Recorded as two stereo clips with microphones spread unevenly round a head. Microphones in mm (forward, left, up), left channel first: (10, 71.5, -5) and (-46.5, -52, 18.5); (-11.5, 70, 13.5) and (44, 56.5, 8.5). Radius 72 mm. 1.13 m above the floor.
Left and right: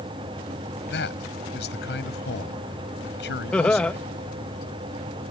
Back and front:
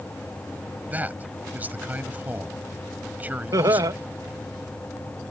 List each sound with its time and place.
0.9 s a man speaking: 50° left
3.5 s laughter: 15° right